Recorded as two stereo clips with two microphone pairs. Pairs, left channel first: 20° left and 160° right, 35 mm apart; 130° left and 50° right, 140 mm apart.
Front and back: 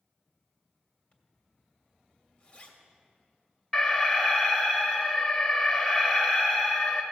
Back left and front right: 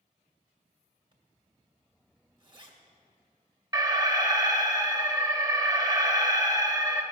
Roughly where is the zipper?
Ahead.